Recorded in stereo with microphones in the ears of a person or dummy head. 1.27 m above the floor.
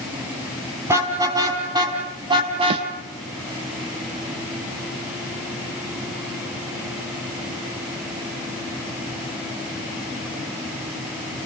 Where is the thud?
30° right (ahead or behind), 0.6 m.